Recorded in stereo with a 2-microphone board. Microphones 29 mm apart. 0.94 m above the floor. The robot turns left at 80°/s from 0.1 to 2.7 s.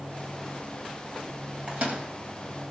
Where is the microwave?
35° right (ahead or behind), 3.5 m; by 2.0 s 65° right (ahead or behind), 3.5 m.